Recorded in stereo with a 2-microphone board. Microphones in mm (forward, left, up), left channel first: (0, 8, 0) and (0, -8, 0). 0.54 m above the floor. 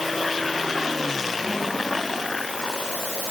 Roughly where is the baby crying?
No baby crying in this recording.